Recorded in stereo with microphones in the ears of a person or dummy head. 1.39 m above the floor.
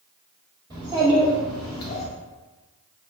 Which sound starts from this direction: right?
A child speaking, at 0.7 s.